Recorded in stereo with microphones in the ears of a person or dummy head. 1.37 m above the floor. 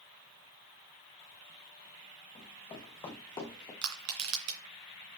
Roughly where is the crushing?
Right.